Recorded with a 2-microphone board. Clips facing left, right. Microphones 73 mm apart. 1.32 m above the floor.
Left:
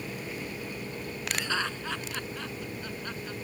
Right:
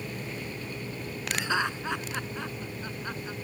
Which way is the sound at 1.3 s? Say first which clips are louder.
Right 3 dB; 15° right (ahead or behind).